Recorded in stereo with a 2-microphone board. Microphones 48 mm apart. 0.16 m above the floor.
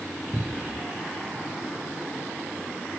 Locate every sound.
0.3 s a cupboard door: 5° right (ahead or behind)